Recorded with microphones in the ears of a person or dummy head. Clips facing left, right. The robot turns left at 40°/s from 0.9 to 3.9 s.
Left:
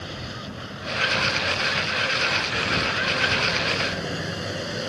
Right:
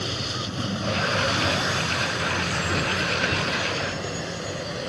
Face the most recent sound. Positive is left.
turn(degrees=175)